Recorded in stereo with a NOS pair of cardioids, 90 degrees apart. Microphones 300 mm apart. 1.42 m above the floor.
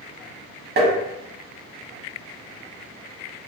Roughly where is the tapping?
Ahead right.